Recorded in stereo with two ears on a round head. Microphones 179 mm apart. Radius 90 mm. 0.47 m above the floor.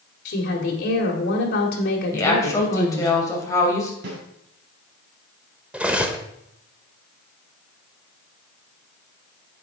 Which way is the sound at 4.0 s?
60° right (ahead or behind).